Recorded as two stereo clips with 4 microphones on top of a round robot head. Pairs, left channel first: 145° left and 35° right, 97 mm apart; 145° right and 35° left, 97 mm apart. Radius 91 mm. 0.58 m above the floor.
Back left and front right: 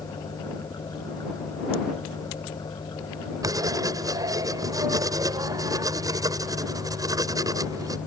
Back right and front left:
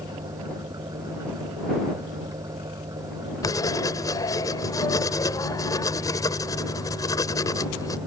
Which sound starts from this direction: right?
Writing, at 3.4 s.